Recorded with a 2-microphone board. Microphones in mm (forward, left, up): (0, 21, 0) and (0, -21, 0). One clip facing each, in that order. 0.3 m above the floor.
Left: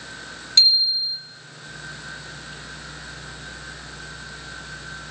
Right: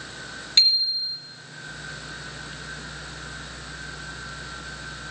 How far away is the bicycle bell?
About 3.5 m.